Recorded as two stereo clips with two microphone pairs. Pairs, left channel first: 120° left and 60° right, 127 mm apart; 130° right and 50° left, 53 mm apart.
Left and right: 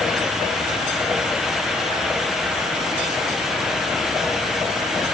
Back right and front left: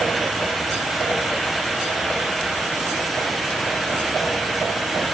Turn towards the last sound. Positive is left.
No sound to turn to.